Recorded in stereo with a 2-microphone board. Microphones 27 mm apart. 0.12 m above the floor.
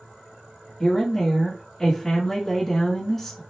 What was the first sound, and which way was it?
A woman speaking, 10° left (ahead or behind).